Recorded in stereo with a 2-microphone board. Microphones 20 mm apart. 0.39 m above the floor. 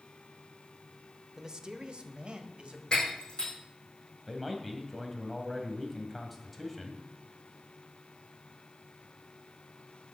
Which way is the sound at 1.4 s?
25° right (ahead or behind).